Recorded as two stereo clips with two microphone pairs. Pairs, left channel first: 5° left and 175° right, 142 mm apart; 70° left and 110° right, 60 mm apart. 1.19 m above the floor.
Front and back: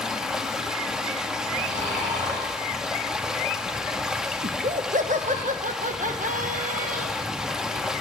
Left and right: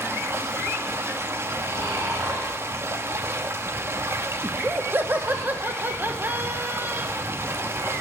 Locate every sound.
0.0 s running water: 90° right, 0.7 m
1.6 s snoring: 150° right, 5 m
4.4 s laughter: 165° right, 1.1 m